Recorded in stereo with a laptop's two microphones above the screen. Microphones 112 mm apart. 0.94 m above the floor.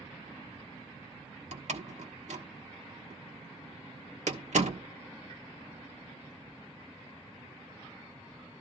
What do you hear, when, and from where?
1.5 s a door slam: 75° right (ahead or behind), 1.4 m